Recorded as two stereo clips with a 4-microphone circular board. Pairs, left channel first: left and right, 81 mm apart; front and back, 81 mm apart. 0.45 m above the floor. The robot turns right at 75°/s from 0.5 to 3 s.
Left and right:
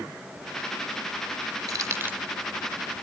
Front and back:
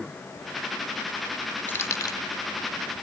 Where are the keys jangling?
60° right, 1.1 m; by 2.2 s 25° right, 1.1 m.